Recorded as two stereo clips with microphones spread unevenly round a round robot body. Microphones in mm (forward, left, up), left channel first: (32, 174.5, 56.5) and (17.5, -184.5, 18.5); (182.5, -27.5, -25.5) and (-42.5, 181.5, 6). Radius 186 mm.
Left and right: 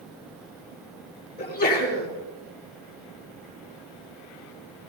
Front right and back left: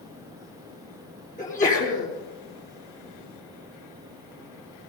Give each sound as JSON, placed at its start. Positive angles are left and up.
{"t": 1.4, "sound": "a sneeze", "azimuth_deg": 20, "distance_m": 7.0}